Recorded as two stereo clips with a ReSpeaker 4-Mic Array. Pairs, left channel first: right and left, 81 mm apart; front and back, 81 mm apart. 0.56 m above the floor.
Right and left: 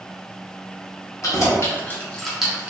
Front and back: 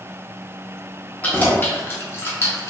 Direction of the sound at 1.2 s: 65° right.